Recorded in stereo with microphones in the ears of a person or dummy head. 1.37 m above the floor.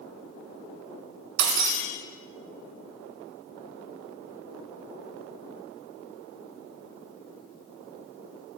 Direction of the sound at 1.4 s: 60° right (ahead or behind).